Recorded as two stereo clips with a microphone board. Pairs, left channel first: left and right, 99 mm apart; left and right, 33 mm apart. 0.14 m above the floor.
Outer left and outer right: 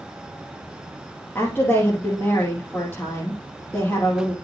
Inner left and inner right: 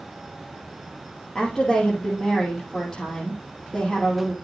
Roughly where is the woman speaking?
Left.